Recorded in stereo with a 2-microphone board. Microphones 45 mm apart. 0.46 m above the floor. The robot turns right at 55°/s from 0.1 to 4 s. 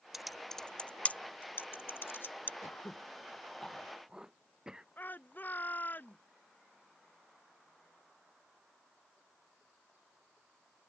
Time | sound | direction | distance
0.1 | typing on a keyboard | 5° right (ahead or behind) | ?
2.6 | throat clearing | 60° left (ahead or behind) | ?
5.0 | a shout | 45° left (ahead or behind) | ?